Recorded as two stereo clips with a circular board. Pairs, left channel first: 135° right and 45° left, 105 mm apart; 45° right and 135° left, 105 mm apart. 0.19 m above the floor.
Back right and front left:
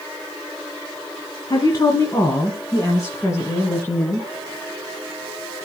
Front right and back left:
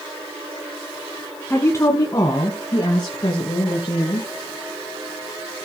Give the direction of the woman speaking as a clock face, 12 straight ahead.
3 o'clock.